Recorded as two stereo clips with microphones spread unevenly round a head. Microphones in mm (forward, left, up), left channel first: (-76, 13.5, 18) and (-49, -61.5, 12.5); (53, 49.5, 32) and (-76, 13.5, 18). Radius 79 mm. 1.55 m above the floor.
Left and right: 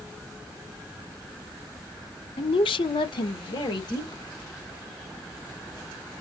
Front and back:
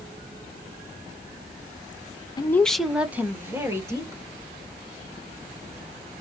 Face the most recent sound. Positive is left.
turn(degrees=130)